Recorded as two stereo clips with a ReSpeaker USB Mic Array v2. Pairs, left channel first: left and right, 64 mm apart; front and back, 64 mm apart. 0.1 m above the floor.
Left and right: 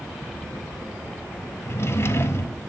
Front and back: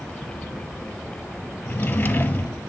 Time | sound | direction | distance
1.6 | a drawer | 60° left | 1.2 m